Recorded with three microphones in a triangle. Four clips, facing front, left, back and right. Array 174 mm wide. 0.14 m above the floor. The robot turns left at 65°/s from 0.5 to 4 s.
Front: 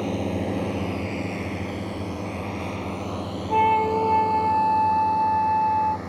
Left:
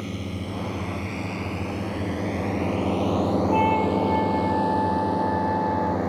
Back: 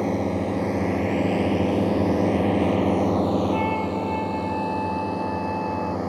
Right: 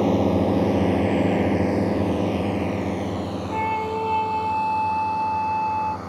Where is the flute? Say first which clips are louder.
Left 1 dB, front 4 dB; 15° left; by 6.0 s 15° right.